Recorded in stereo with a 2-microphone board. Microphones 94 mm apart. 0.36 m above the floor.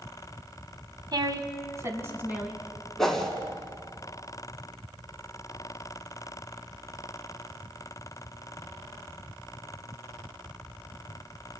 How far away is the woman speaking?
About 1.9 m.